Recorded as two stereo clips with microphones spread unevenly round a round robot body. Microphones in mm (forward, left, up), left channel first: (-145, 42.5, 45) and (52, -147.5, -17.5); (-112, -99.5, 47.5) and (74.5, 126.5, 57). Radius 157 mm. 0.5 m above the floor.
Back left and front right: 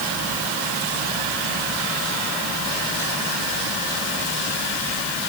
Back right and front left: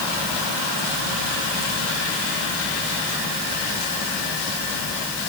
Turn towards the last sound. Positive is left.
No sound to turn to.